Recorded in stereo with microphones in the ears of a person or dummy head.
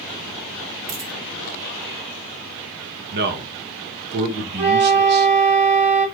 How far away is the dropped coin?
About 1.2 m.